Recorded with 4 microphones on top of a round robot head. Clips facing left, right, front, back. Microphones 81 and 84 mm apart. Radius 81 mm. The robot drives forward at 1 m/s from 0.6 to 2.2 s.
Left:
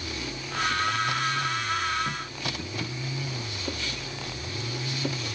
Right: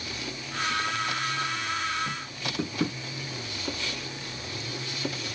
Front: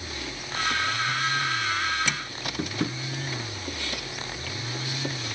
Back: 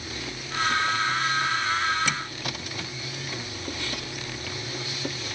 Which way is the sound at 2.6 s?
55° right.